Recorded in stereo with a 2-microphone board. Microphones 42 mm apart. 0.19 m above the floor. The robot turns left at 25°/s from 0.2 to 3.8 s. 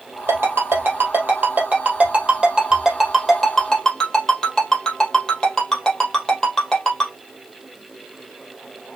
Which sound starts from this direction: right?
A ringtone, at 0.3 s.